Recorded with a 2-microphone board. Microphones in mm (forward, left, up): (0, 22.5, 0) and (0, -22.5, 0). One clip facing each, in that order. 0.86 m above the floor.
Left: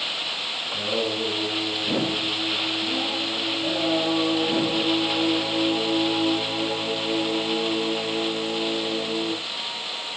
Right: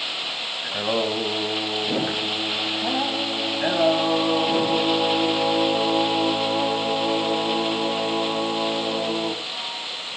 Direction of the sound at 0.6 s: 75° right (ahead or behind).